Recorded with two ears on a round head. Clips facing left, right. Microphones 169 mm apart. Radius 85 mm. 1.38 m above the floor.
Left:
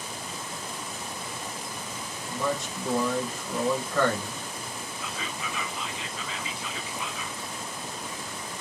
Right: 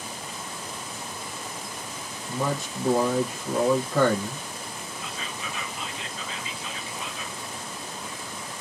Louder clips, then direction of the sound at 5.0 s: Left 1 dB; 65° left (ahead or behind).